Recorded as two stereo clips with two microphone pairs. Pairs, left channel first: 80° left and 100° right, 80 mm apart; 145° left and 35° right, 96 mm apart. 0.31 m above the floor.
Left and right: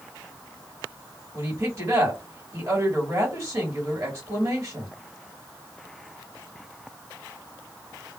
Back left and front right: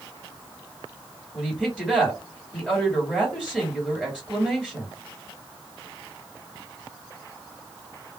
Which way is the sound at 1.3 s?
135° right.